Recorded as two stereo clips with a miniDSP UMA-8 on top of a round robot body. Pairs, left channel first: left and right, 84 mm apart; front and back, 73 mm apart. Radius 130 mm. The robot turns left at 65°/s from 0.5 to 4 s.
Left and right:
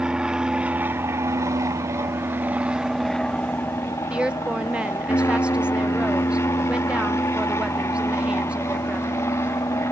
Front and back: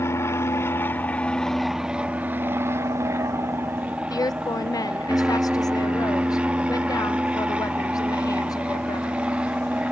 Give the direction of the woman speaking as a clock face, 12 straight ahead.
12 o'clock.